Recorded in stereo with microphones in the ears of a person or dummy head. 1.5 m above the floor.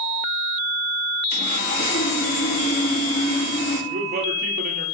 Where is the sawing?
55° left (ahead or behind), 1.5 m.